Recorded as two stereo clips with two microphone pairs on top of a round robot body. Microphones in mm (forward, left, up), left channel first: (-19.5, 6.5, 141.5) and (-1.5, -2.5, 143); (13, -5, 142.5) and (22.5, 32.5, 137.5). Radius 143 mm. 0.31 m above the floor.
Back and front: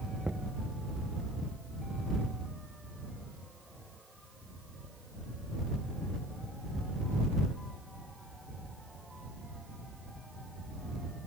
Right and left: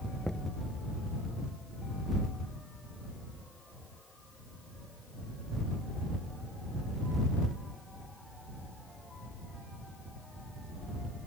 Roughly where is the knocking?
Ahead right.